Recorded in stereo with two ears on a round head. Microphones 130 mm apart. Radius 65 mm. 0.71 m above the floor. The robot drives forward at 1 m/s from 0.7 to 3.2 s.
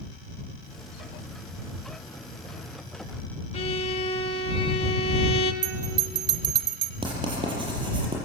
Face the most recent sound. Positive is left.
turn(degrees=-35)  # may be behind; listen again after turning